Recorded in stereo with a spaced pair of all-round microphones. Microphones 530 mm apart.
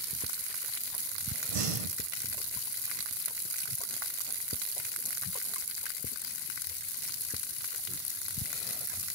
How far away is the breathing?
About 0.8 m.